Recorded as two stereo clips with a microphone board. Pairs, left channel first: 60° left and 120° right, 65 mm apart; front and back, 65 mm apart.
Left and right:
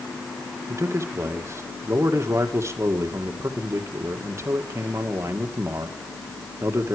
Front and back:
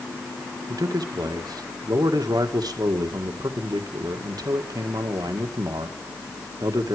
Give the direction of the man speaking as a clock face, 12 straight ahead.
6 o'clock.